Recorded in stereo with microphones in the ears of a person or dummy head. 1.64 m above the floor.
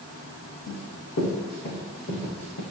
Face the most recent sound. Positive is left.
turn(degrees=65)  # may be behind; listen again after turning